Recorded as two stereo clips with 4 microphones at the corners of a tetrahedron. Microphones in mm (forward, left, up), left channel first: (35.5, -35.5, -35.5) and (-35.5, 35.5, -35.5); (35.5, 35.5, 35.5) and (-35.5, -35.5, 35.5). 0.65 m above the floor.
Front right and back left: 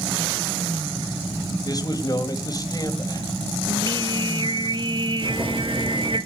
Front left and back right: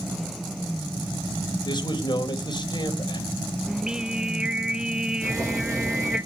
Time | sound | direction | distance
1.6 | a man speaking | 5° left | 2.5 m
3.7 | singing | 145° left | 0.6 m
5.2 | boiling | 170° left | 6 m